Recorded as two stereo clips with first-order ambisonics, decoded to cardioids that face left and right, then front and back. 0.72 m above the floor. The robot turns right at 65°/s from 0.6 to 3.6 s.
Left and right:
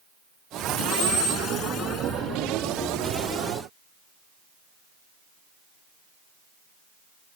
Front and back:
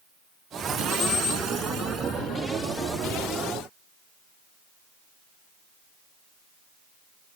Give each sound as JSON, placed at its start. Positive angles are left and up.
{"t": 0.9, "sound": "a squeak", "azimuth_deg": 70, "distance_m": 7.5}